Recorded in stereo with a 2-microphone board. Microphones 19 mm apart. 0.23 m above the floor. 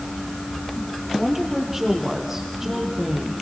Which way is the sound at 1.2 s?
15° right (ahead or behind).